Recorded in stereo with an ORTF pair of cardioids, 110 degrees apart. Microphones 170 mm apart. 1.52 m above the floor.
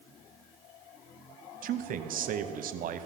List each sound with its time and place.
1.6 s a man speaking: 60° right, 0.7 m